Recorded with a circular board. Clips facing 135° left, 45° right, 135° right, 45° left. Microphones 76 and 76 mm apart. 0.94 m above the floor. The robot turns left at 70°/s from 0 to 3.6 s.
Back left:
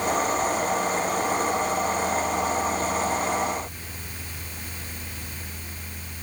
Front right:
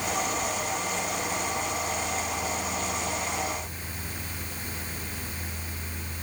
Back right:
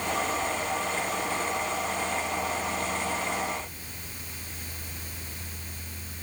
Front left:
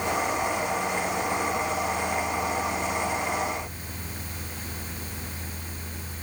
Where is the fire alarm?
No fire alarm in this recording.